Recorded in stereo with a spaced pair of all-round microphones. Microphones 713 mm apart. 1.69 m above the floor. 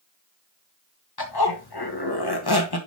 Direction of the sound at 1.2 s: 30° left (ahead or behind).